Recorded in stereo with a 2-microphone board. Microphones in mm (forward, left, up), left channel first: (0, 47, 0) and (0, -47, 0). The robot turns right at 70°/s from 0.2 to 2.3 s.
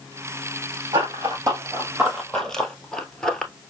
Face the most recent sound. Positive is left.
turn(degrees=5)  # may be behind; listen again after turning